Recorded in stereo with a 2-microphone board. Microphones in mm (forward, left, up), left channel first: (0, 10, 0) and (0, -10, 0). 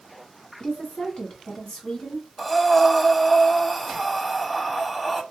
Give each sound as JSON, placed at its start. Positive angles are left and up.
{"t": 0.6, "sound": "a woman speaking", "side_deg": 50, "distance_m": 1.9}
{"t": 2.4, "sound": "breathing", "side_deg": 10, "distance_m": 0.5}